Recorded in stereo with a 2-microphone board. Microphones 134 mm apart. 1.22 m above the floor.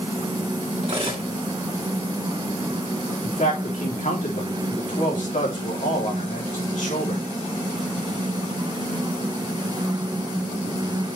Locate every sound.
0.8 s cutlery clinking: 45° right (ahead or behind), 2 m
3.2 s a man speaking: 70° left (ahead or behind), 3 m